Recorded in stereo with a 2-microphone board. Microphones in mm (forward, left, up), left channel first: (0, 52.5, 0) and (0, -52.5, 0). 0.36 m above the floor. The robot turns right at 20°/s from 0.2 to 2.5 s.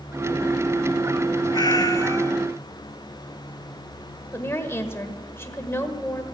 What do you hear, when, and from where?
1.5 s a cat meowing: 40° left (ahead or behind), 0.8 m; by 2.3 s 25° left (ahead or behind), 0.8 m
4.3 s a woman speaking: 25° left (ahead or behind), 1.4 m